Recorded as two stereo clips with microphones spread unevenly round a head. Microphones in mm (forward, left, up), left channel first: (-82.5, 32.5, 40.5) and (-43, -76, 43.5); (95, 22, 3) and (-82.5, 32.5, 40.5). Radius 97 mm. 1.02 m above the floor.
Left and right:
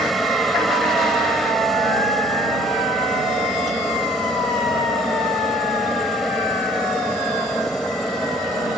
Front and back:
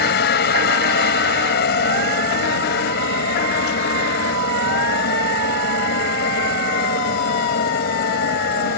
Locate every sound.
0.0 s a helicopter: 20° left